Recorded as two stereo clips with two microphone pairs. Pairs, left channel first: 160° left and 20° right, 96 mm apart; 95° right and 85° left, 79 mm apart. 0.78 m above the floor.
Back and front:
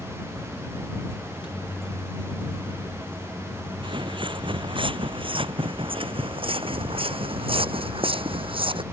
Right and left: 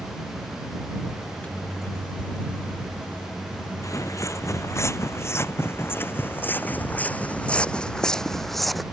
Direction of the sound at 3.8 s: 50° right.